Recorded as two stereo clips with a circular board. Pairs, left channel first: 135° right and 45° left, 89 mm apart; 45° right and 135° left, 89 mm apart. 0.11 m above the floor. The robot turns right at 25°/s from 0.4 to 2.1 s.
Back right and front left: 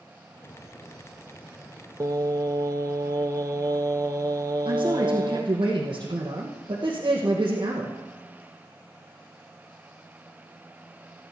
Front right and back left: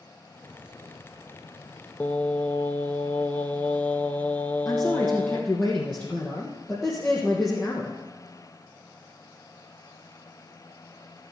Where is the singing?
20° left, 0.6 m.